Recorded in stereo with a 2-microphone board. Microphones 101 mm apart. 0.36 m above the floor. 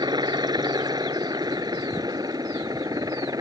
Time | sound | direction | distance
0.0 | a helicopter | 45° right (ahead or behind) | ?